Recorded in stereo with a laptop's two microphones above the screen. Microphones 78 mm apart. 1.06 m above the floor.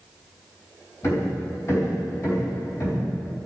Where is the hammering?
35° left (ahead or behind), 3.5 m.